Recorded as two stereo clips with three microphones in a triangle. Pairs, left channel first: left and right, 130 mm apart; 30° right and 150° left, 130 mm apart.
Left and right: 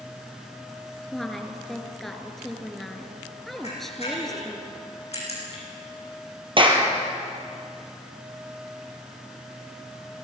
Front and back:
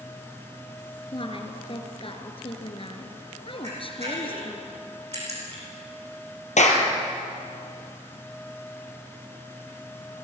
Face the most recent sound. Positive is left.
turn(degrees=-45)